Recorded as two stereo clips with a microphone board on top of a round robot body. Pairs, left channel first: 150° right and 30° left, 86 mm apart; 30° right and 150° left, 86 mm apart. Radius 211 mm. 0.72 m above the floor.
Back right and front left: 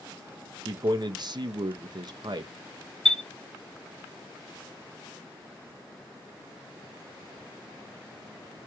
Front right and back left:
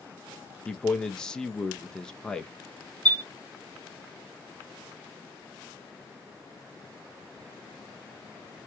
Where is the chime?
125° left, 1.0 m.